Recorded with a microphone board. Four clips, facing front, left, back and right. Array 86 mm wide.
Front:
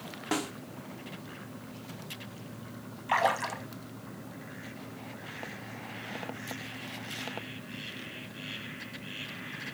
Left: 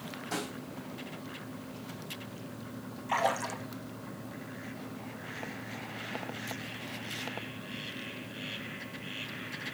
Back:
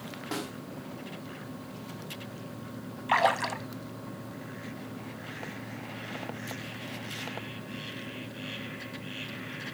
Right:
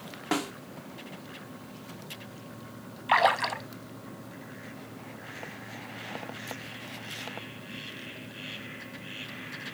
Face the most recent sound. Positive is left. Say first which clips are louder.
# right 6 dB, back 2 dB
turn(degrees=-110)